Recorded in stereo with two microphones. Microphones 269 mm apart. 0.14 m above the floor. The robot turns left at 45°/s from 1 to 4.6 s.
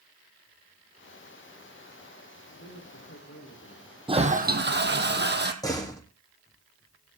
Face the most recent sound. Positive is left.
turn(degrees=15)  # may be behind; listen again after turning